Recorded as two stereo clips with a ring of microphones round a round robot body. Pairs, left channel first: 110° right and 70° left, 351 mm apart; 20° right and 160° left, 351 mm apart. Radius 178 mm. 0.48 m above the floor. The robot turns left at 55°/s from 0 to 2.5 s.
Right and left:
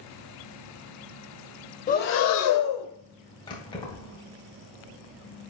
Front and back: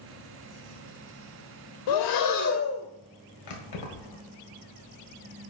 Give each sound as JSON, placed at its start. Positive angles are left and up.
{"t": 1.9, "sound": "breathing", "azimuth_deg": -40, "distance_m": 0.7}
{"t": 3.5, "sound": "keys jangling", "azimuth_deg": -35, "distance_m": 1.5}